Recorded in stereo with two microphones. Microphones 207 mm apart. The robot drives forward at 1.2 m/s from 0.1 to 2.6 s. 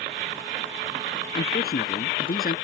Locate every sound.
1.4 s a man speaking: 50° left (ahead or behind); by 2.5 s 45° left (ahead or behind)